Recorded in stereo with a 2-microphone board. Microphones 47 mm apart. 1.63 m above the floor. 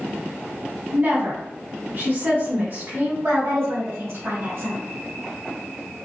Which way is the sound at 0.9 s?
40° right (ahead or behind).